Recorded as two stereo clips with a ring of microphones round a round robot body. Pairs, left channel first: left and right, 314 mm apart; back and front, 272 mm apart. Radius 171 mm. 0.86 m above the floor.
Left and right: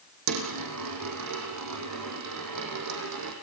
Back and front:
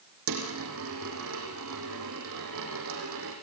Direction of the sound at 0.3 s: 50° right.